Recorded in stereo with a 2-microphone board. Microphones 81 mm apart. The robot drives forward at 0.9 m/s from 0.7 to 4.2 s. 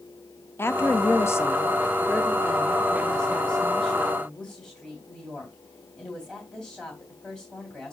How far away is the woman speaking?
About 0.8 m.